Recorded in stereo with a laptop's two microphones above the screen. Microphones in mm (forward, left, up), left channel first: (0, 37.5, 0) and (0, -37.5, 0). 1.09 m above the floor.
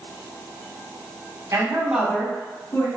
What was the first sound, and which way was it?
A woman speaking, 45° right (ahead or behind).